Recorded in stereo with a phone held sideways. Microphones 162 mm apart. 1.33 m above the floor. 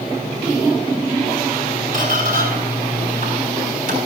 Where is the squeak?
50° right (ahead or behind), 7 m.